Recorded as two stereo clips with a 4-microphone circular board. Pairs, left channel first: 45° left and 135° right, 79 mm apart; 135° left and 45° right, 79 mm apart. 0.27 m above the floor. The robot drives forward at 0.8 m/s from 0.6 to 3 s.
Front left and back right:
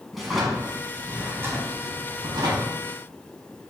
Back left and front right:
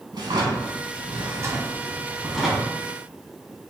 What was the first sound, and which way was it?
A drawer, 45° right.